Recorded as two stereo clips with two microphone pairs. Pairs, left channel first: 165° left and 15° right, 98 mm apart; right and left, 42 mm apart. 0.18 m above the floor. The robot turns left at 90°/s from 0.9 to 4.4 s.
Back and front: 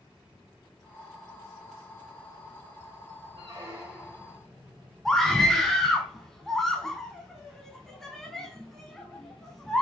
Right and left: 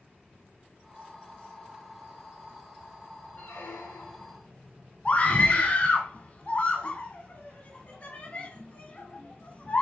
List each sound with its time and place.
3.4 s a squeak: 45° right, 2 m; by 4.4 s 135° right, 2 m
5.0 s a scream: 110° right, 1.3 m